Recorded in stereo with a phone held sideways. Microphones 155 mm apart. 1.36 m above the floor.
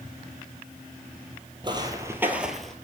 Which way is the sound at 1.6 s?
30° right (ahead or behind).